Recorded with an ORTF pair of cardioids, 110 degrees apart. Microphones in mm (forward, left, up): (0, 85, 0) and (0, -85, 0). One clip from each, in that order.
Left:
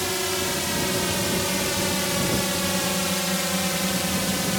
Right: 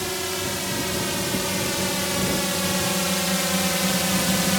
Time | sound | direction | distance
0.0 | a drone | 10° left | ?